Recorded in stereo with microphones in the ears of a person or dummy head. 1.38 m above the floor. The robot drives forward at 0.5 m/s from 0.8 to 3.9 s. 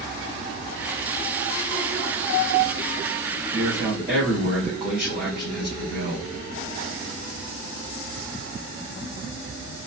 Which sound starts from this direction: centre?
A man speaking, at 3.5 s.